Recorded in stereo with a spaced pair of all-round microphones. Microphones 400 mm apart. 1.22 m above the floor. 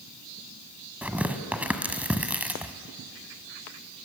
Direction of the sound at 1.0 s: 5° right (ahead or behind).